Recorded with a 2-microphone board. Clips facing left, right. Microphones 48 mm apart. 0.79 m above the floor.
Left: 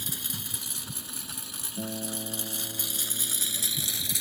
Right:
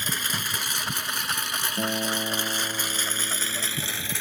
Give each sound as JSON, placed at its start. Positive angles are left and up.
{"t": 0.0, "sound": "a lawn mower", "side_deg": -65}
{"t": 1.8, "sound": "a guitar", "side_deg": -35}